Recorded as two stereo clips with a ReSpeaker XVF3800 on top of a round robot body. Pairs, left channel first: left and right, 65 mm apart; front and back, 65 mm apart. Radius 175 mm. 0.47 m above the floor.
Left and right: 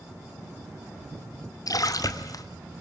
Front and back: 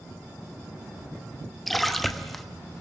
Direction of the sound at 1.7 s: 85° left.